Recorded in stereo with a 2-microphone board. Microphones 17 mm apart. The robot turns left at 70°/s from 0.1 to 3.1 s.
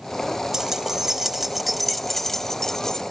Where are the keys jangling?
30° right (ahead or behind), 0.8 m; by 3.0 s 30° left (ahead or behind), 0.8 m.